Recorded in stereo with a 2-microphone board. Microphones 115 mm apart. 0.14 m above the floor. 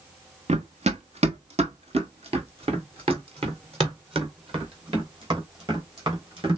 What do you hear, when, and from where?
0.5 s running footsteps: 80° right, 0.9 m; by 6.6 s 50° right (ahead or behind), 4 m